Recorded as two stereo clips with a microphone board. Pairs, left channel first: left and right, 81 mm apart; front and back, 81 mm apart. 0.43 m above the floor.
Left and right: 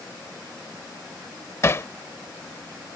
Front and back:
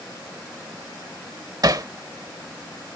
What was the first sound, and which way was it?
Hammering, 145° left.